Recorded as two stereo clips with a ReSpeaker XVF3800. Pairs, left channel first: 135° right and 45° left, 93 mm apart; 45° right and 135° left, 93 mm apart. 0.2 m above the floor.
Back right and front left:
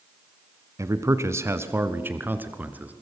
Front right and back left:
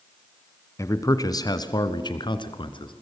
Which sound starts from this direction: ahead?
A man speaking, at 0.8 s.